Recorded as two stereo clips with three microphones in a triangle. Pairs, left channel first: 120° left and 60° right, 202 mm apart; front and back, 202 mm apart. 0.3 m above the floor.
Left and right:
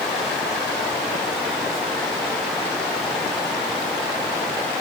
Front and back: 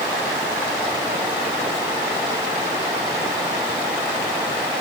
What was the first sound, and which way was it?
Only background noise.